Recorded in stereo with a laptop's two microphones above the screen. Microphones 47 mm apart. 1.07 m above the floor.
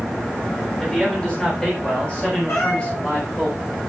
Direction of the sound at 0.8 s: 20° left (ahead or behind).